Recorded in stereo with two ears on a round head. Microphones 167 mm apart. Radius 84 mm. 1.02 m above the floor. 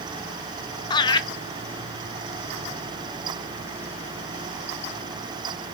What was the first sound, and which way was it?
Laughter, 25° left (ahead or behind).